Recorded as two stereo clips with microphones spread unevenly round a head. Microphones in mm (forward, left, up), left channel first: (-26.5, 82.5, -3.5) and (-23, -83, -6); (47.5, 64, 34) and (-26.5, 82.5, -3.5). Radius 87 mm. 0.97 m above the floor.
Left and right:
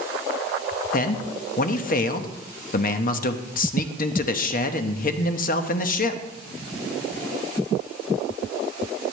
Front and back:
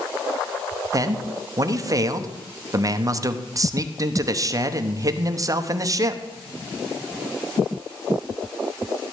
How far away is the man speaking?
About 0.9 m.